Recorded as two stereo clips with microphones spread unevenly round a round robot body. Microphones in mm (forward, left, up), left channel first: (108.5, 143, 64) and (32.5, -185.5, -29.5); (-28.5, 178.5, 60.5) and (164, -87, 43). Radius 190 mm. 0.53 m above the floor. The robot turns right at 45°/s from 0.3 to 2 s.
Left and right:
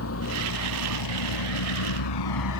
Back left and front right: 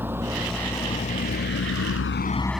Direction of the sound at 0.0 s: 30° left.